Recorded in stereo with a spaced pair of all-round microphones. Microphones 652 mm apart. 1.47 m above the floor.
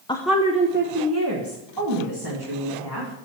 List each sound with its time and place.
0.1 s a woman speaking: 10° left (ahead or behind), 0.5 m; by 3.3 s 40° right (ahead or behind), 2 m